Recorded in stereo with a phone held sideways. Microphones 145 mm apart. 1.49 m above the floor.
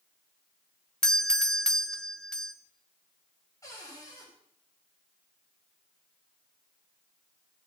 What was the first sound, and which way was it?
A doorbell, 5° left (ahead or behind).